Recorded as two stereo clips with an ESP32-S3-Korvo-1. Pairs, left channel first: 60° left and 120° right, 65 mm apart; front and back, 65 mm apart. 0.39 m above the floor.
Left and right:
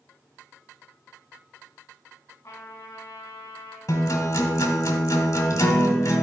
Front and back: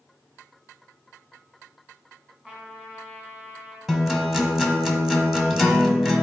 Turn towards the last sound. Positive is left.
turn(degrees=95)